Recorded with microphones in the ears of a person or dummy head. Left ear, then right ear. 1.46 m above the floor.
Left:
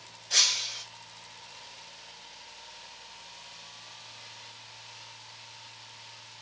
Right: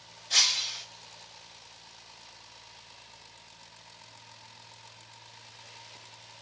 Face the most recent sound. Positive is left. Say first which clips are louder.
# even
turn(degrees=-25)  # may be behind; listen again after turning